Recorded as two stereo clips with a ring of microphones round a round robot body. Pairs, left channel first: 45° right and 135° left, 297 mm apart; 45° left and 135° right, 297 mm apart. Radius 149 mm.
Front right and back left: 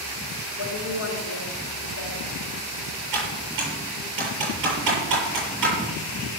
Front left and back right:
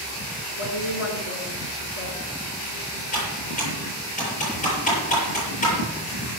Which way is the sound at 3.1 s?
110° left.